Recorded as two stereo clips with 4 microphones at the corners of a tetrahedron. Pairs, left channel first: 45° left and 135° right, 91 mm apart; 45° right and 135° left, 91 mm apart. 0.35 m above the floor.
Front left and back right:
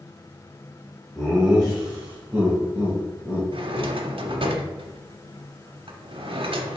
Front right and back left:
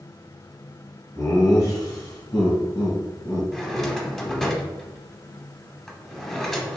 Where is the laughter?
45° right, 1.6 m; by 4.5 s 75° right, 3 m.